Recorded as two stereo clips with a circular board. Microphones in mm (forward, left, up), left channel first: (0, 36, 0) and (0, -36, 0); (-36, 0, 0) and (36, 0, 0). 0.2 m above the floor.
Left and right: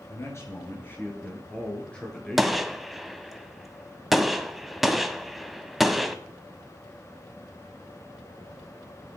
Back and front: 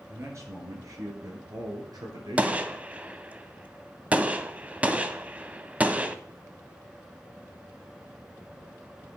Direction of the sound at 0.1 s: 50° left.